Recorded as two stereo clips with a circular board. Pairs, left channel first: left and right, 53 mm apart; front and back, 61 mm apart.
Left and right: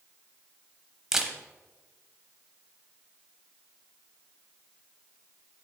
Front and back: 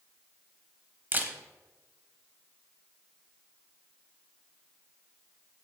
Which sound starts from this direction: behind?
A camera shutter, at 1.1 s.